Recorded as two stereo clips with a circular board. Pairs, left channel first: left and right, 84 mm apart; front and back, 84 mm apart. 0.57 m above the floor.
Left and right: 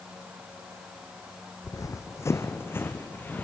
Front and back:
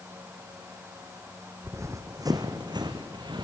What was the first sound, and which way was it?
Running footsteps, 130° left.